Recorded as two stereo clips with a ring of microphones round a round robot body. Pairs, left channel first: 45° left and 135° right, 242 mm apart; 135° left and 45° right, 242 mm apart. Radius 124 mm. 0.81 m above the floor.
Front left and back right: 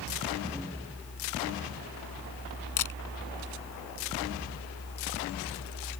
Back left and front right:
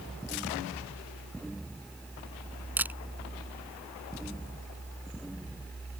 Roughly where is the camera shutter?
Ahead left.